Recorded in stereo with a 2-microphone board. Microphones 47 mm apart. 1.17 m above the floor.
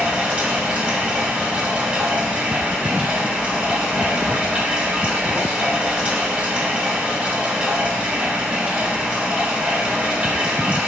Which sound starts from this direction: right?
Running water, at 0.0 s.